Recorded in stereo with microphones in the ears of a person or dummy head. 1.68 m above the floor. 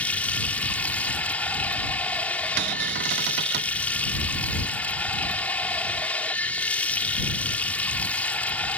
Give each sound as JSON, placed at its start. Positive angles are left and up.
{"t": 0.0, "sound": "running water", "side_deg": 10}
{"t": 2.6, "sound": "a cupboard door", "side_deg": -60}